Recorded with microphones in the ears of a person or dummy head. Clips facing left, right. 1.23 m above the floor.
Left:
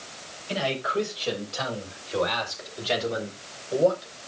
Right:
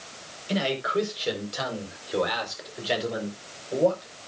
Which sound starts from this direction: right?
A man speaking, at 0.5 s.